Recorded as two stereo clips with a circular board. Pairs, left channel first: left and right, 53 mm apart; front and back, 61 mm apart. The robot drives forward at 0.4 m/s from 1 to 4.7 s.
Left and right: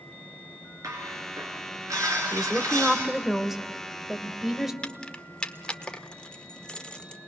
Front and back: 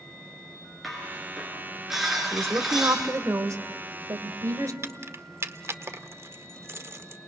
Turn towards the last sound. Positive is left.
turn(degrees=155)